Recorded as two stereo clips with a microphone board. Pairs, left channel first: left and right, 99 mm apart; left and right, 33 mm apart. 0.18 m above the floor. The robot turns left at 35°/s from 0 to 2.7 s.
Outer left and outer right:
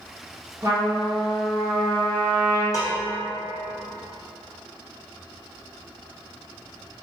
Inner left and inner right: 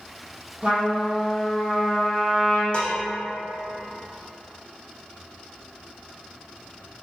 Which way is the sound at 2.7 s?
40° left (ahead or behind).